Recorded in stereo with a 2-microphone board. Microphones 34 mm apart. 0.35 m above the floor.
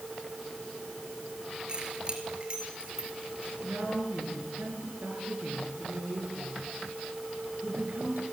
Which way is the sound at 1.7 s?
25° right (ahead or behind).